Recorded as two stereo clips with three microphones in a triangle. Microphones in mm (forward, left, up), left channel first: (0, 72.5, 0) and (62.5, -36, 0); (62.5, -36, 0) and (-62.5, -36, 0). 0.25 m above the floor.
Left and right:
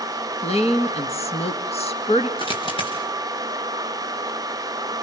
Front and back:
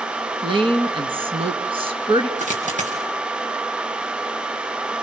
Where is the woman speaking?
140° left, 2 m.